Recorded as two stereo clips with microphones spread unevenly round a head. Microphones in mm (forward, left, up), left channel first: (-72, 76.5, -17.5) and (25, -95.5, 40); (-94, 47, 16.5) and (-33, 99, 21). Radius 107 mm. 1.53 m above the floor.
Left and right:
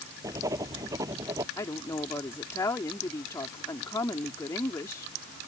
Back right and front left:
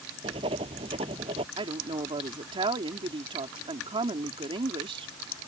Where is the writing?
10° left.